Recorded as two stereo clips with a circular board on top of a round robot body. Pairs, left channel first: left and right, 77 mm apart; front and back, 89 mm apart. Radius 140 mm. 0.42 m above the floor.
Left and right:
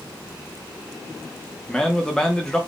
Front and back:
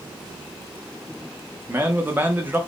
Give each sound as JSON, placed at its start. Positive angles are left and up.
{"t": 1.7, "sound": "a man speaking", "azimuth_deg": 160, "distance_m": 0.8}